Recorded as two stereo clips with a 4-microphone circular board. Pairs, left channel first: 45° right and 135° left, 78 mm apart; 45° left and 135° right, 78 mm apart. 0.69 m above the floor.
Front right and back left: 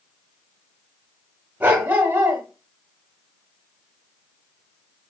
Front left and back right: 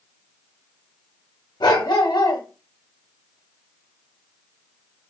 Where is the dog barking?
70° left, 1.2 m.